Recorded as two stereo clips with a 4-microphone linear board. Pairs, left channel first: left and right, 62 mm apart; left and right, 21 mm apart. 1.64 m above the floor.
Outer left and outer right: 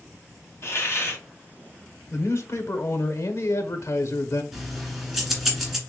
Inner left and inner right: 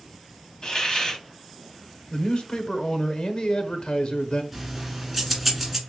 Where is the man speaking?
55° left (ahead or behind), 1.0 m.